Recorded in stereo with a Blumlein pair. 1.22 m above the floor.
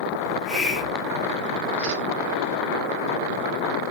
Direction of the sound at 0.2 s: 10° left.